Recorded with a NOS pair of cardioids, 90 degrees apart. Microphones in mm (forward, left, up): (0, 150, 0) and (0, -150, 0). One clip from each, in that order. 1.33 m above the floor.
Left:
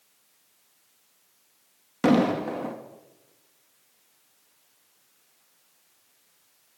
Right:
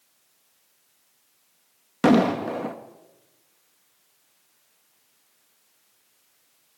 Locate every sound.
2.0 s an explosion: 25° right, 2 m